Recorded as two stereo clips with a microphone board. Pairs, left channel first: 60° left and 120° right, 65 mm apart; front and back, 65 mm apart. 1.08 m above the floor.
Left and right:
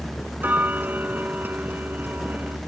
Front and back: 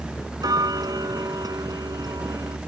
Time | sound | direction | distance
0.4 | ticking | 175° left | ?